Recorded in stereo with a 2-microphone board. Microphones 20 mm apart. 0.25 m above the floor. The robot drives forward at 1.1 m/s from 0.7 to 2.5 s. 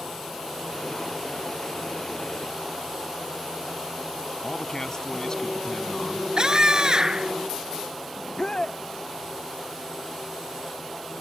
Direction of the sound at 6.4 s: 40° right (ahead or behind).